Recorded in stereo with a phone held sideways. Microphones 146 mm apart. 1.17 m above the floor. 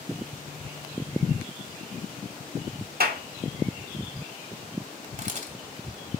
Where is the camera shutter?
55° right (ahead or behind), 2 m.